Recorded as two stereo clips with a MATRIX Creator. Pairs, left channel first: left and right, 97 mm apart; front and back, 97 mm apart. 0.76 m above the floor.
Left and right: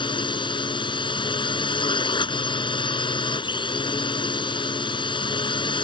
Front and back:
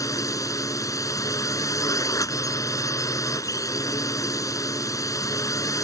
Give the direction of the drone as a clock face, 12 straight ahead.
10 o'clock.